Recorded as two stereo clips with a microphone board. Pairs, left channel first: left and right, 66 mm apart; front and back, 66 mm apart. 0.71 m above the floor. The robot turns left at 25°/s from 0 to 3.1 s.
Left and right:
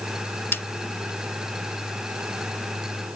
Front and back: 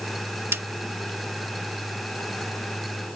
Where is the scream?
I don't hear a scream.